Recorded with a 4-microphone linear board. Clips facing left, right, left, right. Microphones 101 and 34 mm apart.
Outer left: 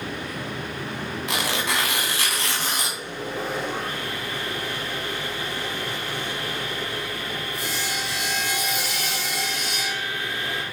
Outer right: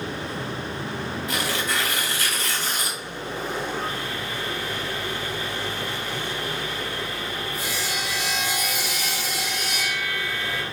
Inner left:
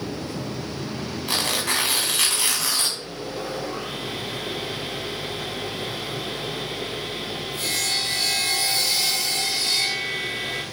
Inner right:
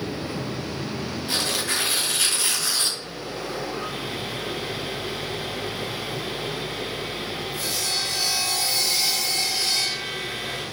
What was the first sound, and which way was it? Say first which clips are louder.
Tearing paper: outer left 2 dB, inner left 2 dB; 80° left.